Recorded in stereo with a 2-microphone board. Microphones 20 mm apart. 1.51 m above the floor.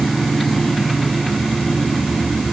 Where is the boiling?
I don't hear boiling.